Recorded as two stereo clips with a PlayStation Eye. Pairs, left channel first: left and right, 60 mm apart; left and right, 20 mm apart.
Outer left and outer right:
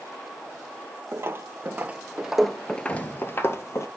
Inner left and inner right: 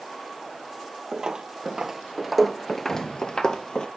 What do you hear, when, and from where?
1.1 s footsteps: 45° right (ahead or behind), 1.0 m; by 3.9 s 55° left (ahead or behind), 0.9 m
2.9 s an explosion: 70° left (ahead or behind), 3 m